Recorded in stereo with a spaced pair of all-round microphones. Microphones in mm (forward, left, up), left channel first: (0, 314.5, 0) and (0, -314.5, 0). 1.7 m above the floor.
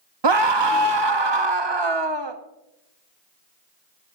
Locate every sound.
0.2 s a scream: 40° right (ahead or behind), 1.0 m